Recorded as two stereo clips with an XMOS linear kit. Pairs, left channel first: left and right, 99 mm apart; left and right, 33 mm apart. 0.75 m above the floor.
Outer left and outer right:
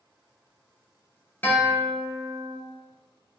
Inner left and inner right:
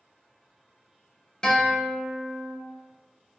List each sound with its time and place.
1.4 s a guitar: 20° left (ahead or behind), 0.6 m